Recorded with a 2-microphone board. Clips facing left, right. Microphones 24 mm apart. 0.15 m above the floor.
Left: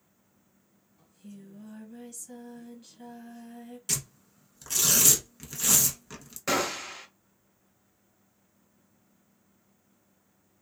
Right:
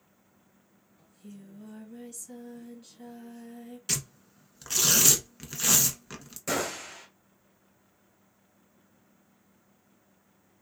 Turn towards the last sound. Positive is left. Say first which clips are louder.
# left 3 dB
turn(degrees=30)  # may be behind; listen again after turning